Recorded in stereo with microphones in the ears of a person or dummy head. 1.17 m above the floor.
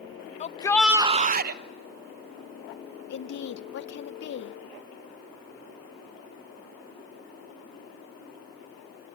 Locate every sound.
0.4 s a shout: 40° left (ahead or behind), 0.7 m; by 1.6 s 55° right (ahead or behind), 1.0 m
3.1 s a woman speaking: 60° left (ahead or behind), 0.7 m